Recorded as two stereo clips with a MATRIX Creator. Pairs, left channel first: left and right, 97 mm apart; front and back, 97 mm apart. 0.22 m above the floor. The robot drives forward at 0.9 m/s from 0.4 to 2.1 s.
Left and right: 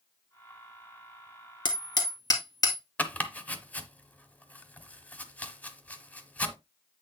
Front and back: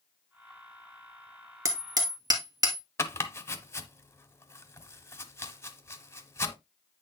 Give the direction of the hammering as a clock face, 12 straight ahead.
8 o'clock.